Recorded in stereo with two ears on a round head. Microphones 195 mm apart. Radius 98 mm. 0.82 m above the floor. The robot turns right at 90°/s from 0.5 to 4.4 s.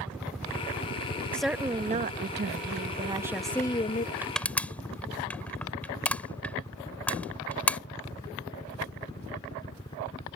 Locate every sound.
0.0 s a helicopter: 5° right (ahead or behind); by 10.4 s 20° left (ahead or behind)
1.3 s a woman speaking: 170° left; by 4.1 s 60° left
4.2 s crushing: 10° right (ahead or behind); by 7.8 s 5° left (ahead or behind)